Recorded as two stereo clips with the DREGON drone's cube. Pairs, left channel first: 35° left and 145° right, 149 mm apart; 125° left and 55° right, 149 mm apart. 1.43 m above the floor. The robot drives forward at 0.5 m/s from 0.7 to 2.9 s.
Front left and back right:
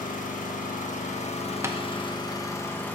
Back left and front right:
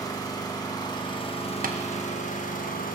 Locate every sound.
0.0 s an engine running: 60° left, 1.3 m; by 3.0 s 110° left, 1.2 m
1.6 s tapping: 70° right, 0.9 m; by 1.8 s 75° right, 0.8 m